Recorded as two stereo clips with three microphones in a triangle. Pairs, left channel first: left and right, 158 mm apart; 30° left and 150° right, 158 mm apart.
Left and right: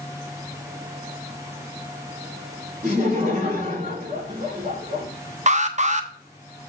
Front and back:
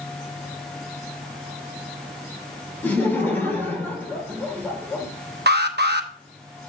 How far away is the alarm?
About 0.8 m.